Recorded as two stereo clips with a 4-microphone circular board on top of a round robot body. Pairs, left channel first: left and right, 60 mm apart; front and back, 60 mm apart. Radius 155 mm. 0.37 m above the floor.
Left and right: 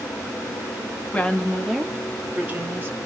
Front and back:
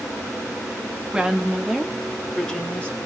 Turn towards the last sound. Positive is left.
turn(degrees=-65)